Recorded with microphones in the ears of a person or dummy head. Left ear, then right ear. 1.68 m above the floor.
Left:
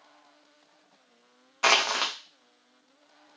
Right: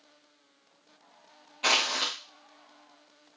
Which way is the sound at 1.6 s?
45° left (ahead or behind).